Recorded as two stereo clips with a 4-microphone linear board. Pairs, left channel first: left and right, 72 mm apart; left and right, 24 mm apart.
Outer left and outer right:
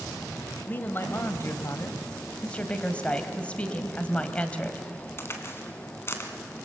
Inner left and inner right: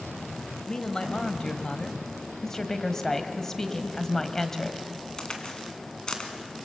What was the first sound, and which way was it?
A man speaking, 25° left (ahead or behind).